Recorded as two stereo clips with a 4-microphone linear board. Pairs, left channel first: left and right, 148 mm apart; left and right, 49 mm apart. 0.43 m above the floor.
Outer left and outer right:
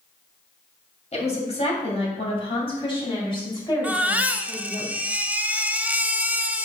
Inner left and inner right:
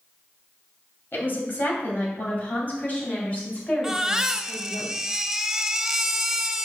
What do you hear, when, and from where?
1.1 s a woman speaking: 45° left (ahead or behind), 3 m; by 4.8 s 25° left (ahead or behind), 4 m
3.8 s a baby crying: 10° right (ahead or behind), 0.6 m